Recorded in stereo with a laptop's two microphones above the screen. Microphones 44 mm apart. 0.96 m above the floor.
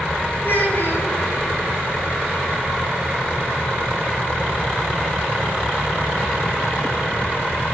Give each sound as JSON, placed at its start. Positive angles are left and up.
{"t": 0.4, "sound": "a child speaking", "side_deg": 50, "distance_m": 5.5}